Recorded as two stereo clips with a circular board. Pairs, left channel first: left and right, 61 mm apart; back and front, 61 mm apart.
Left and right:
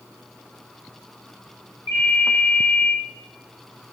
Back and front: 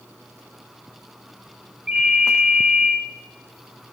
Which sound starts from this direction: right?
A ringtone, at 1.9 s.